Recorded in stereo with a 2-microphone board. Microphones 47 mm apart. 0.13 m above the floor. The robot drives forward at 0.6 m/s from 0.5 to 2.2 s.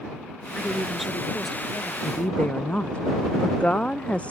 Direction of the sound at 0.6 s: Centre (ahead or behind).